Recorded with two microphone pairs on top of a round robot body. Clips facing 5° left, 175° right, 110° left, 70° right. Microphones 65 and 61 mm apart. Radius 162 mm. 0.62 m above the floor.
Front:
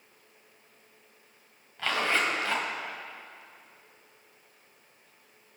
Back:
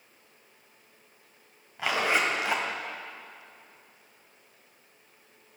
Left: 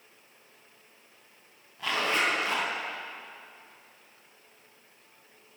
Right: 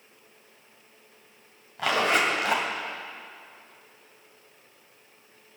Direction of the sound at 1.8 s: 100° right.